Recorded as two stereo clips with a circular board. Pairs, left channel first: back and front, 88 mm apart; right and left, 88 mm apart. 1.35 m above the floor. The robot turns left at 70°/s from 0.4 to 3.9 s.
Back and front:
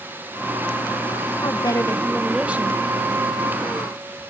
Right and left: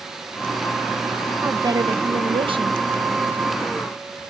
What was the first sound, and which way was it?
A woman speaking, 150° left.